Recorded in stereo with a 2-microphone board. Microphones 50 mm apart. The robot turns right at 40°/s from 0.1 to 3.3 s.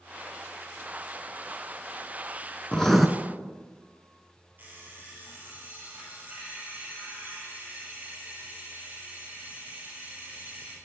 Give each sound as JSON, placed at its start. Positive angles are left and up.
{"t": 2.7, "sound": "writing", "side_deg": 15, "distance_m": 0.5}
{"t": 4.6, "sound": "an alarm clock", "side_deg": -35, "distance_m": 2.5}